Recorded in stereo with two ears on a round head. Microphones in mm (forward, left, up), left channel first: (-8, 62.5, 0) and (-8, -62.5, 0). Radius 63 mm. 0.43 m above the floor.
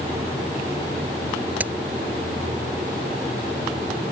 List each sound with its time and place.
1.6 s a crack: 10° right (ahead or behind)